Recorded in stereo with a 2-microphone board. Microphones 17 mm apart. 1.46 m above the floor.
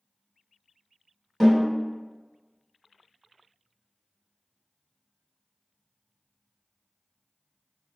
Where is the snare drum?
10° right (ahead or behind), 1.7 m.